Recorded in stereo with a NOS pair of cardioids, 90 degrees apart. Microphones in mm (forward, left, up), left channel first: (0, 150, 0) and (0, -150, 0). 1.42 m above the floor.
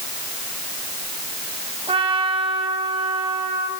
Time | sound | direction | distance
1.9 | a trumpet | 20° right | 5.5 m